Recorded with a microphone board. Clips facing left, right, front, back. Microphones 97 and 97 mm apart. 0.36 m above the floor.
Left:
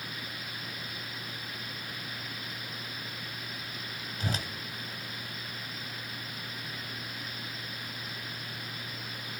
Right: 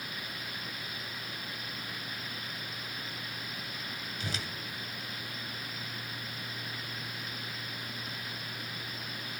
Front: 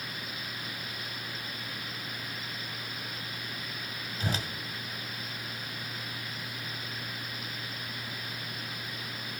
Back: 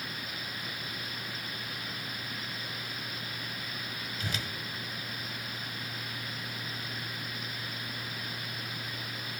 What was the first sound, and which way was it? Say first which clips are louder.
A whoosh: left 5 dB, front 5 dB; 50° left.